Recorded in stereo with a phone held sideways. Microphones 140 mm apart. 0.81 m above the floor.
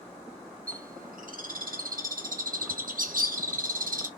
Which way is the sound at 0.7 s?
80° right.